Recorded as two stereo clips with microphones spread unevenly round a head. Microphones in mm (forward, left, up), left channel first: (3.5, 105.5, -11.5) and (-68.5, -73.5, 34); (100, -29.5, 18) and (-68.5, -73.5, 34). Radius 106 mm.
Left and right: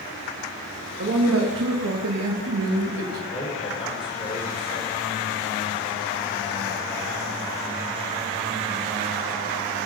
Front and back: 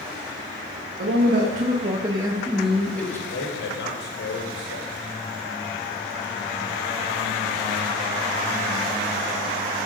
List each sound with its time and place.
1.0 s a man speaking: 135° right, 2 m; by 3.2 s 65° right, 2 m
3.3 s a man speaking: straight ahead, 5.5 m